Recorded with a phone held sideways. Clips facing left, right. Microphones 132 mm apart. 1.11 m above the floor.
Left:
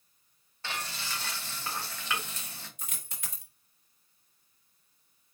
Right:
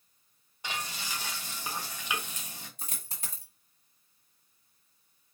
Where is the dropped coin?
35° right (ahead or behind), 1.3 m.